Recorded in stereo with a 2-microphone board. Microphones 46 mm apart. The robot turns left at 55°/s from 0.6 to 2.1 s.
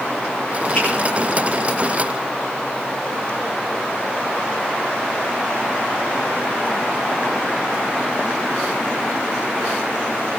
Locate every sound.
0.8 s a finger snap: 30° left (ahead or behind), 8 m; by 0.9 s 35° left (ahead or behind), 8 m